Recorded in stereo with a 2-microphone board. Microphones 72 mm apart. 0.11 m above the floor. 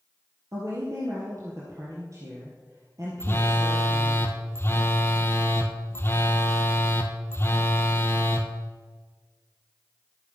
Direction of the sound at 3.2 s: 35° left (ahead or behind).